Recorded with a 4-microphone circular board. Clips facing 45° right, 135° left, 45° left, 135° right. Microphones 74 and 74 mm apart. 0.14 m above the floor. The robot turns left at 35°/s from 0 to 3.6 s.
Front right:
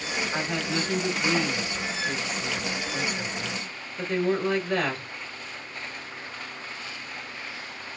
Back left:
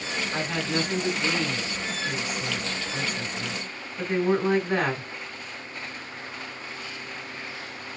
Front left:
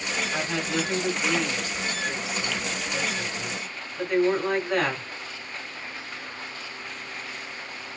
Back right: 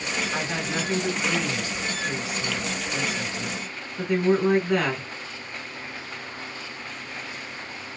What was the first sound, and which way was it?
A woman speaking, 100° right.